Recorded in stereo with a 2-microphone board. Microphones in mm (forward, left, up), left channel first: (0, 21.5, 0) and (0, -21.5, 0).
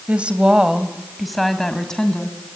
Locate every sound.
0.1 s a woman speaking: 30° right (ahead or behind), 1.8 m; by 2.4 s 20° left (ahead or behind), 3 m